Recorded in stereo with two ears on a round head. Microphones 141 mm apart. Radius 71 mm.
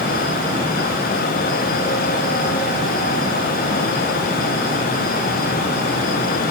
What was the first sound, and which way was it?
Only background noise.